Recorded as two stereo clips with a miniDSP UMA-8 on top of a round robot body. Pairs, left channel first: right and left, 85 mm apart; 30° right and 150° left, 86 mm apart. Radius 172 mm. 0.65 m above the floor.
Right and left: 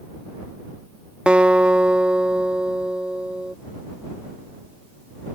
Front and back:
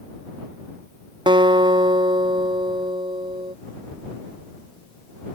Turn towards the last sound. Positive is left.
turn(degrees=170)